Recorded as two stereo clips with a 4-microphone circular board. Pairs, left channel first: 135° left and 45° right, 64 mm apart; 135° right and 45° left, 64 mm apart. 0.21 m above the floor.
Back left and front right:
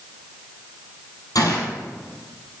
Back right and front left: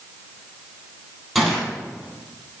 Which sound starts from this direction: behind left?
A gunshot, at 1.4 s.